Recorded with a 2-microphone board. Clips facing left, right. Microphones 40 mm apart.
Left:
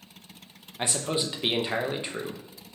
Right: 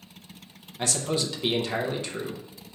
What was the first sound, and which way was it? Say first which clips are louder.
A man speaking: right 1 dB; 20° left (ahead or behind).